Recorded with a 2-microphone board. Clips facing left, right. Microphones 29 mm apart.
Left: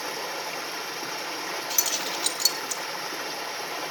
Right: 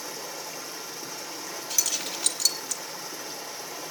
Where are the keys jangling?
10° left (ahead or behind), 1.3 m.